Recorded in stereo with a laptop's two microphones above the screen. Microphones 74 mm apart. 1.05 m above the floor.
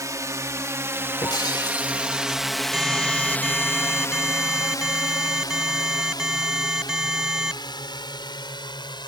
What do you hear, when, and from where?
0.0 s a drone: 45° right (ahead or behind); by 9.1 s 80° left
1.2 s breaking glass: 65° left (ahead or behind)
2.7 s an alarm: 5° right (ahead or behind)